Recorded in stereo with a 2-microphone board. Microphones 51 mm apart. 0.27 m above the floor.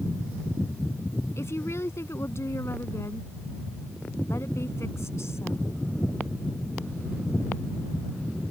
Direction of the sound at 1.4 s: 65° left (ahead or behind).